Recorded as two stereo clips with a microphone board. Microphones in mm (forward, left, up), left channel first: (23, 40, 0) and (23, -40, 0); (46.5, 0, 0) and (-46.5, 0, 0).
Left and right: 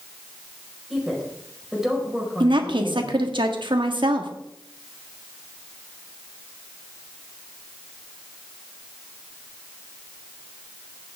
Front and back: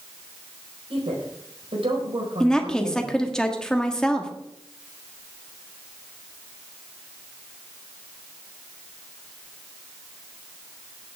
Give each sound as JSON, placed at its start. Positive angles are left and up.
{"t": 0.9, "sound": "a woman speaking", "azimuth_deg": -175, "distance_m": 4.5}
{"t": 2.4, "sound": "a woman speaking", "azimuth_deg": -80, "distance_m": 1.5}